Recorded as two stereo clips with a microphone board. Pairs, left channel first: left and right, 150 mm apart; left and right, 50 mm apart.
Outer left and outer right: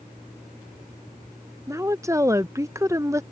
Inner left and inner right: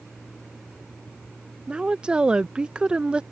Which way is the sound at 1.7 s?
20° right (ahead or behind).